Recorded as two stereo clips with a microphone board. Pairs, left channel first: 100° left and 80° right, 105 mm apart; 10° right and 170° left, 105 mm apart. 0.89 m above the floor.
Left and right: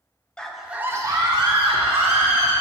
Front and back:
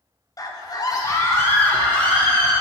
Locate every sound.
0.4 s a scream: 20° left, 0.8 m; by 2.5 s 90° right, 1.5 m